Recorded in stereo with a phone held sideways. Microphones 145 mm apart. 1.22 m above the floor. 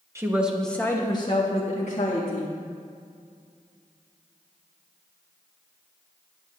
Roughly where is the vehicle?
I don't hear a vehicle.